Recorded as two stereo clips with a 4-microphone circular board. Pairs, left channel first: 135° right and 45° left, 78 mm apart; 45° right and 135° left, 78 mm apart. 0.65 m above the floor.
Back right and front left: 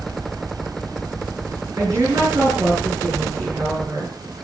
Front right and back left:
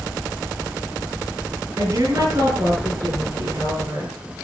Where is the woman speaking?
85° left, 8.5 m.